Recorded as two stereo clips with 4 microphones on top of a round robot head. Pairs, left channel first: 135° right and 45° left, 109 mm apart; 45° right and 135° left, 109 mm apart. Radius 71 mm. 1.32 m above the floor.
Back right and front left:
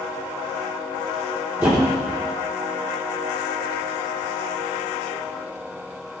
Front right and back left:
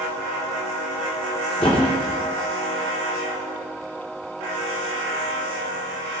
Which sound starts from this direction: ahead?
A thud, at 1.6 s.